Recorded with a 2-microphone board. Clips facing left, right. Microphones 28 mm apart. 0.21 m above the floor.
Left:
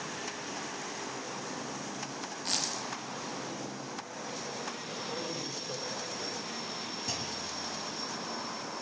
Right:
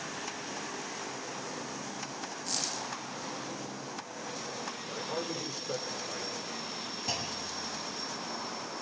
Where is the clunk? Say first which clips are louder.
Right 3 dB; 25° right (ahead or behind), 1.4 m.